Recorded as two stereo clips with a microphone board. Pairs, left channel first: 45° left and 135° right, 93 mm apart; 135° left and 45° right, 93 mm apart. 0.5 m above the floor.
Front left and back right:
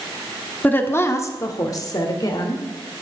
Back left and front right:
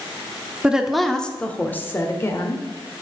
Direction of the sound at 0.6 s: 15° left.